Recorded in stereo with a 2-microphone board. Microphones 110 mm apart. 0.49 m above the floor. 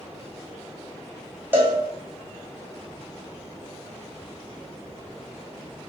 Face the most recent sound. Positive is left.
turn(degrees=-20)  # may be behind; listen again after turning